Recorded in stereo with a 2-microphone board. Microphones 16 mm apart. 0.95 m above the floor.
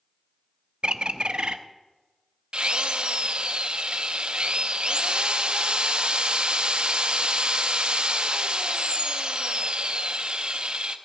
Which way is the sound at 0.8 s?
70° right (ahead or behind).